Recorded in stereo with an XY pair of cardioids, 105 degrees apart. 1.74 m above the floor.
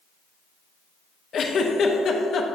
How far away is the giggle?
About 1.0 m.